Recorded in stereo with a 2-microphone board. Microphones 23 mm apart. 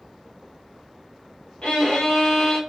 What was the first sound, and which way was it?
A violin, 60° left (ahead or behind).